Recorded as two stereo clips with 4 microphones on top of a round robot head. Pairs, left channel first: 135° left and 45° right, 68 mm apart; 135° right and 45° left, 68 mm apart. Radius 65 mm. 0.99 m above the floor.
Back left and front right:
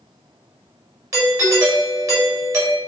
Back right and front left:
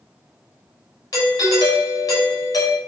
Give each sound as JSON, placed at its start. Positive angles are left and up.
{"t": 1.1, "sound": "a doorbell", "azimuth_deg": -95, "distance_m": 4.5}